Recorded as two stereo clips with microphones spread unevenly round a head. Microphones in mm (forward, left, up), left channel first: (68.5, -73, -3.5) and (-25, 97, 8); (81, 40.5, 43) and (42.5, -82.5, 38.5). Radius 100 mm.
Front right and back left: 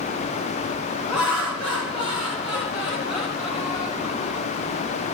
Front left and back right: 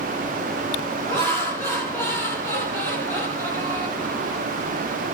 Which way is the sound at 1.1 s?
10° left.